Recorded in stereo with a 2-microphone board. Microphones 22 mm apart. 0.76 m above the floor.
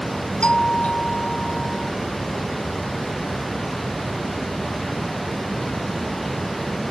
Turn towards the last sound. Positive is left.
turn(degrees=60)  # may be behind; listen again after turning